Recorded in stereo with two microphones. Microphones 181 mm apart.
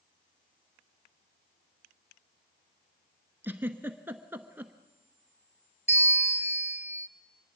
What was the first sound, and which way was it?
A giggle, 10° right (ahead or behind).